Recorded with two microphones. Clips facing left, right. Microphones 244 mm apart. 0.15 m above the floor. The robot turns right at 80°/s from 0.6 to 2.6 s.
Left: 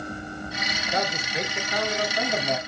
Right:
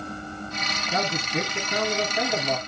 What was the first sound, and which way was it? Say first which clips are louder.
A man speaking: right 2 dB; 120° right.